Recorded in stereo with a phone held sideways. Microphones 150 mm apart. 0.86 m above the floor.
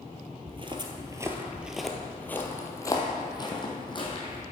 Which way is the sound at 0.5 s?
40° right (ahead or behind).